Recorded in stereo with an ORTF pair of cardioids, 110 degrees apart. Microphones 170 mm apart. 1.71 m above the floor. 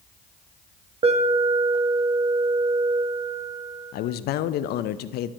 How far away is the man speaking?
About 0.5 m.